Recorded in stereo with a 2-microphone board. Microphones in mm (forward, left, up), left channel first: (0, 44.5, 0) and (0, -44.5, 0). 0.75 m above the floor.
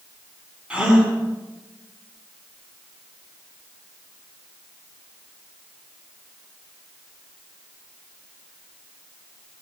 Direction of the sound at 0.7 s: 10° right (ahead or behind).